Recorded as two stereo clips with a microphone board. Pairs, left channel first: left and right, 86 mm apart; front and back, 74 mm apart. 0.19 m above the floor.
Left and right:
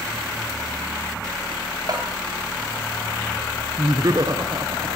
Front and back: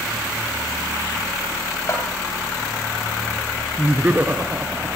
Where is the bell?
45° right, 9 m.